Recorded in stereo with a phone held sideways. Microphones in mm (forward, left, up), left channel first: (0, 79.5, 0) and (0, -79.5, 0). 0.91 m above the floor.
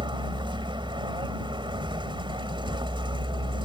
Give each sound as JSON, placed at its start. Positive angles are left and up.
{"t": 0.0, "sound": "a vehicle", "side_deg": -30}